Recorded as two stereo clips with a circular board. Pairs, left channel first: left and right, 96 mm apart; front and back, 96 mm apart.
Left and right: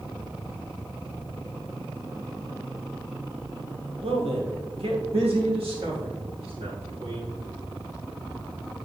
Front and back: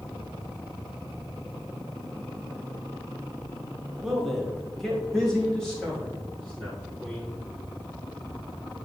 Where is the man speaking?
95° right, 1.4 m; by 7.3 s 80° right, 5.5 m.